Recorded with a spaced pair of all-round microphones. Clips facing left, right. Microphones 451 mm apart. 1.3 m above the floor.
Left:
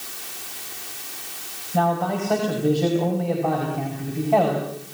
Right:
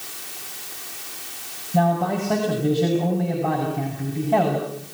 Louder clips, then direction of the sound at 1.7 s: Right 2 dB; 45° right (ahead or behind).